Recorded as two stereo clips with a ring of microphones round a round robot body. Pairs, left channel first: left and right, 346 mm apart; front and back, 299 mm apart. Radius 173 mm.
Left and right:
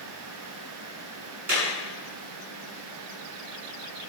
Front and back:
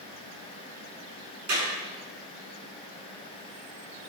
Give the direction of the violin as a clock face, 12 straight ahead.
No violin in this recording.